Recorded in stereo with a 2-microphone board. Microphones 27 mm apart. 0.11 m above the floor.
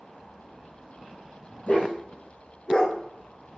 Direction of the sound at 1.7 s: 65° left (ahead or behind).